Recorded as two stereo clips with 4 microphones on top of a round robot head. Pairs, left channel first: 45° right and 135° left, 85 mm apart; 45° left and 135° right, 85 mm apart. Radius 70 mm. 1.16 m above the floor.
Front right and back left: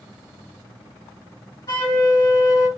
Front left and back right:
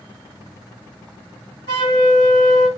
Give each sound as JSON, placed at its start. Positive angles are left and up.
{"t": 1.7, "sound": "a flute", "azimuth_deg": 10, "distance_m": 1.6}